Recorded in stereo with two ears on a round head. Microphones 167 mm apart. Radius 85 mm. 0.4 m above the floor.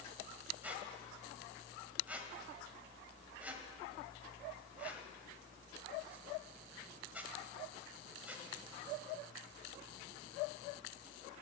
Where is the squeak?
10° right (ahead or behind), 1.6 m.